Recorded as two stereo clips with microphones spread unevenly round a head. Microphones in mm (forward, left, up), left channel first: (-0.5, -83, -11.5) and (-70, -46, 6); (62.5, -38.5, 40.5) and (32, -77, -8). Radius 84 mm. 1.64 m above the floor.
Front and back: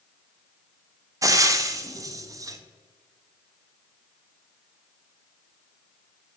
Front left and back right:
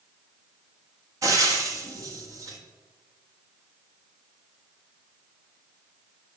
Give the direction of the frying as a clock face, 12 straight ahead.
5 o'clock.